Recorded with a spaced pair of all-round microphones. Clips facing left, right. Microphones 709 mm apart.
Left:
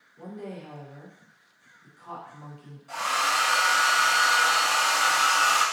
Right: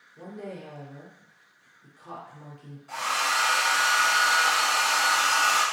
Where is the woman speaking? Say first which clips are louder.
Even; 65° right (ahead or behind), 1.1 m.